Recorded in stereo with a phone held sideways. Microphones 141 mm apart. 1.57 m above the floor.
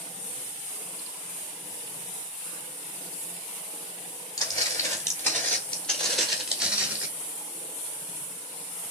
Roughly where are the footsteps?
Left.